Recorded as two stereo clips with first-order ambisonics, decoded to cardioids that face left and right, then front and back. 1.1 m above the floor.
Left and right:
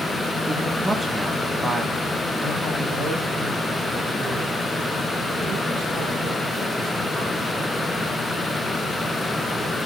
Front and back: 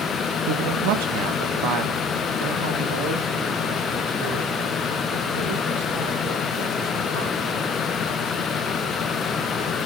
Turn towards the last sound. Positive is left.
turn(degrees=-170)